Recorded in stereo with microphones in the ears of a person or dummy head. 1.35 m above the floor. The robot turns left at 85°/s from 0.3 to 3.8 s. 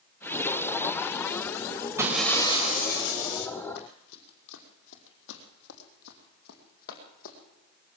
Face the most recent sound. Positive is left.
turn(degrees=50)  # may be behind; listen again after turning